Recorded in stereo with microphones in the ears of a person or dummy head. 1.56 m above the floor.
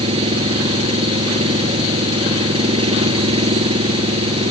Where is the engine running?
25° right (ahead or behind).